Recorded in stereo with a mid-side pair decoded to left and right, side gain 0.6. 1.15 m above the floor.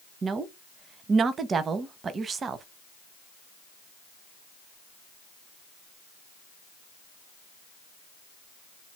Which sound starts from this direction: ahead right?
A woman speaking, at 0.2 s.